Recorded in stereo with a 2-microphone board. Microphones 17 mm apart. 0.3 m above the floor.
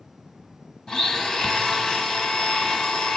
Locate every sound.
0.9 s a blender: 40° left (ahead or behind), 1.1 m